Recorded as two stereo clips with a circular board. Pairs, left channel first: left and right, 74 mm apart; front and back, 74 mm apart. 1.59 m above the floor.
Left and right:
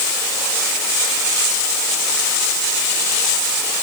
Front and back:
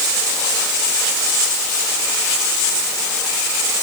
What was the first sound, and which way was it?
Only background noise.